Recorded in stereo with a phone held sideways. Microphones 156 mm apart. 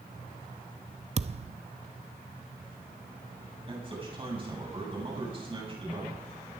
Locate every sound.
1.2 s a thud: 40° right (ahead or behind), 0.5 m
3.7 s a man speaking: 35° right (ahead or behind), 7.5 m